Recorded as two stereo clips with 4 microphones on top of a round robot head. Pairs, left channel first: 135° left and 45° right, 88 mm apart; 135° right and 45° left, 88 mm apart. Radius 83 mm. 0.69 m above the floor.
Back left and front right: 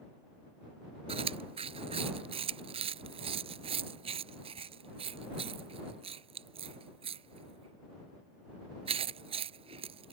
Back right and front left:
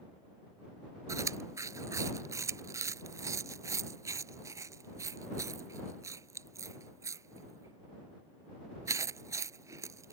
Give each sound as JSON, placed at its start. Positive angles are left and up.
{"t": 1.1, "sound": "chewing", "azimuth_deg": -15}